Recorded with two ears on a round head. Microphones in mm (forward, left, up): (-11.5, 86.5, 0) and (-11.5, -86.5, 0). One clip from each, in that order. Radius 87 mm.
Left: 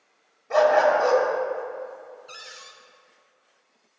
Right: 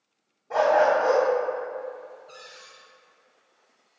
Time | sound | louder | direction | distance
0.5 | a dog barking | left 2 dB | 65° left (ahead or behind) | 2.5 m
2.3 | a cupboard door | left 4 dB | 55° left (ahead or behind) | 0.8 m